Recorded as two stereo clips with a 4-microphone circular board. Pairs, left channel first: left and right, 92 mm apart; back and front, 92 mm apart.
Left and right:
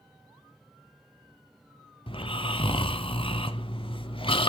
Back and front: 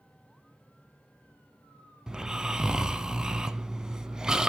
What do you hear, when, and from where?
2.1 s snoring: 80° left, 0.5 m